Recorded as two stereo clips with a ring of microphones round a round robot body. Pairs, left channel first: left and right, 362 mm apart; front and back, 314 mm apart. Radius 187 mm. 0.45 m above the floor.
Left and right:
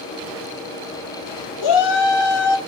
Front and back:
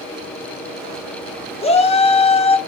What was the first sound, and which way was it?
A shout, 70° left.